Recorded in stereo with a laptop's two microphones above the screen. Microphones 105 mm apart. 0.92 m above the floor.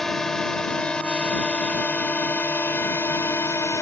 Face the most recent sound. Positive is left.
turn(degrees=25)  # may be behind; listen again after turning